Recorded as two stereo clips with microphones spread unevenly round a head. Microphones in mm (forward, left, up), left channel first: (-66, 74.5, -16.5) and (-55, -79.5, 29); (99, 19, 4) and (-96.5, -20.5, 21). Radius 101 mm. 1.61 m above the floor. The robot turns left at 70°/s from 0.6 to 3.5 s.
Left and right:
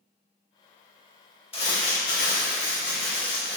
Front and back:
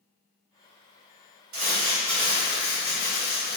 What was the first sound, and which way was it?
Crumpling, 150° left.